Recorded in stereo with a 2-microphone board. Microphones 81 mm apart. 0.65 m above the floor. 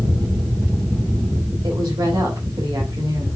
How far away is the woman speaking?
About 3.5 m.